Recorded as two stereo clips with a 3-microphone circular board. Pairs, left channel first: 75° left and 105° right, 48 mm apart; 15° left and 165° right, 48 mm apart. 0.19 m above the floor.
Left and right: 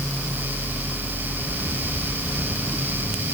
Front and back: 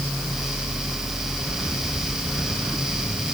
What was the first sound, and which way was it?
Only background noise.